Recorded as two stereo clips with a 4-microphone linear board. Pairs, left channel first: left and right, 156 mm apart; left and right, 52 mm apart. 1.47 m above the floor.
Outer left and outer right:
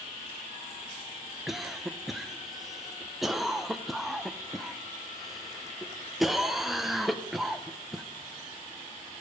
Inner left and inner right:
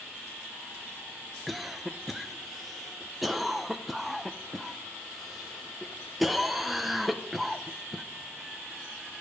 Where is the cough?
Centre (ahead or behind), 0.6 m.